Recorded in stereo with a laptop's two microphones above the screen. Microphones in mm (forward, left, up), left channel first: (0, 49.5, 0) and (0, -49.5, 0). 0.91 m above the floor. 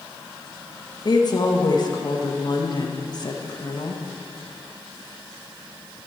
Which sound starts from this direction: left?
A woman speaking, at 1.1 s.